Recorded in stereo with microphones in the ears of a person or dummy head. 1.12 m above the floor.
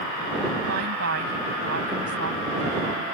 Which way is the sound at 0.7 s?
70° right (ahead or behind).